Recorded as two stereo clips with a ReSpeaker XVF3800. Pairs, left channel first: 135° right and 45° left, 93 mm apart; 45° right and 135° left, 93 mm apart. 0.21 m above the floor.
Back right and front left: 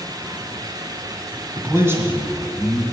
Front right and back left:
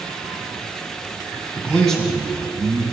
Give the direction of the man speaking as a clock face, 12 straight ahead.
11 o'clock.